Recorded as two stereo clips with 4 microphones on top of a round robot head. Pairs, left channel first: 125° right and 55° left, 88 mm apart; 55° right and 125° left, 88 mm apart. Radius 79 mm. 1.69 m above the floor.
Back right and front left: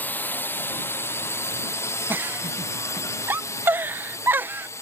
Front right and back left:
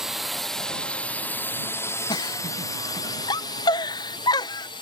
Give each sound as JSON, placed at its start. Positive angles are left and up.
{"t": 0.0, "sound": "a drone", "azimuth_deg": -160}
{"t": 2.1, "sound": "a giggle", "azimuth_deg": -10}